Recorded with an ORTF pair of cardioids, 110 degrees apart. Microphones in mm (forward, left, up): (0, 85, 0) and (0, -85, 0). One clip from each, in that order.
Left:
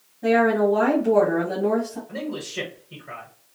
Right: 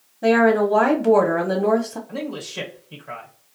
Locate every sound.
0.2 s a woman speaking: 60° right, 0.9 m
2.1 s a man speaking: 5° right, 1.1 m